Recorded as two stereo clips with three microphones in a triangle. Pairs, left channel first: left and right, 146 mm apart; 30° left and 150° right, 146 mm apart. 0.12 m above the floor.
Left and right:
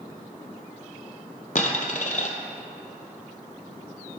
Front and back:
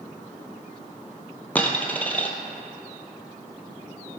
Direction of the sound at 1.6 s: 110° left.